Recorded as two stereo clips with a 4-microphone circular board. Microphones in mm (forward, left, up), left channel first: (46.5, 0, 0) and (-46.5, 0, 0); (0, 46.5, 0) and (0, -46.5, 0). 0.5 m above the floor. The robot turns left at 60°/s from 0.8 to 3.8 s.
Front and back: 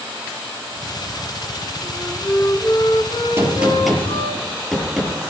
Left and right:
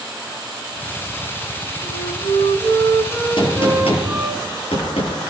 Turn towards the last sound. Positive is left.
turn(degrees=90)